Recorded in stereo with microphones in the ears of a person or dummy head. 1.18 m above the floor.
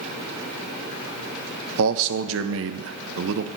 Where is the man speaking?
70° right (ahead or behind), 0.9 m.